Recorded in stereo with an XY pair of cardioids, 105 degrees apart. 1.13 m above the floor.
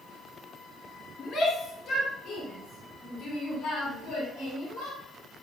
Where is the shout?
50° left, 2.5 m; by 5.0 s 75° left, 5 m.